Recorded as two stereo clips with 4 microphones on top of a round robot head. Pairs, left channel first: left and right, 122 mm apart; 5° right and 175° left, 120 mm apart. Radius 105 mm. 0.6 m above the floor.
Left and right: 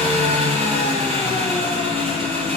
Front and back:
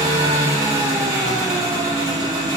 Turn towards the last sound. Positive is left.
turn(degrees=-120)